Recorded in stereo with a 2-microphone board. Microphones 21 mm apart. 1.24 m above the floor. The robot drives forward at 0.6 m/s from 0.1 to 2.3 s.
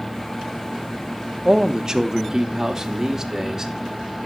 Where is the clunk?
I don't hear a clunk.